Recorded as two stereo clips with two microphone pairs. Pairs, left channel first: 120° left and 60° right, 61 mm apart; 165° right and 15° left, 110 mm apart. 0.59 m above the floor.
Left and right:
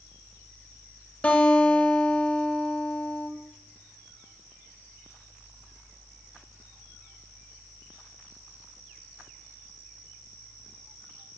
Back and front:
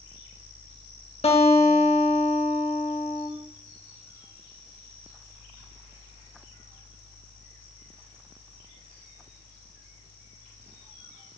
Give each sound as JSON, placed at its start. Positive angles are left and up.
{"t": 1.2, "sound": "a guitar", "azimuth_deg": -170, "distance_m": 2.5}